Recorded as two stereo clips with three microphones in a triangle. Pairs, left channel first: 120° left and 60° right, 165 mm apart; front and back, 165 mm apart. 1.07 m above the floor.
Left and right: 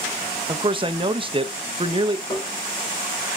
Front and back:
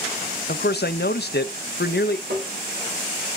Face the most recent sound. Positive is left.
turn(degrees=-175)